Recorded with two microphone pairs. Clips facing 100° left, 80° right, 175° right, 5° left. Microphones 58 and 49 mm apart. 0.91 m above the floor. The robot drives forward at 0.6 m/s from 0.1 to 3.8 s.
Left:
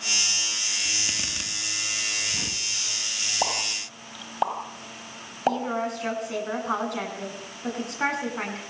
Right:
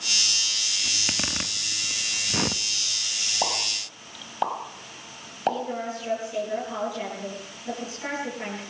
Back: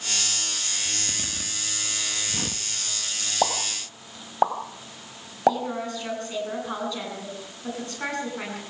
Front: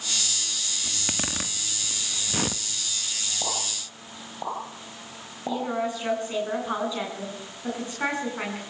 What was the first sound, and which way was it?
A zipper, 25° right.